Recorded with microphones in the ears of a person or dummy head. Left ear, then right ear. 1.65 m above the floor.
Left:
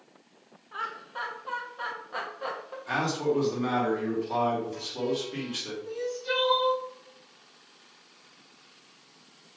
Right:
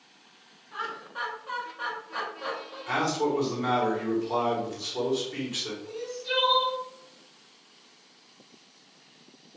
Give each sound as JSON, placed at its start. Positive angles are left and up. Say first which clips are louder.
{"t": 0.7, "sound": "laughter", "louder": "even", "side_deg": 20, "distance_m": 0.9}
{"t": 2.9, "sound": "a man speaking", "louder": "right 1 dB", "side_deg": 0, "distance_m": 1.3}
{"t": 5.8, "sound": "crying", "louder": "left 2 dB", "side_deg": 70, "distance_m": 1.6}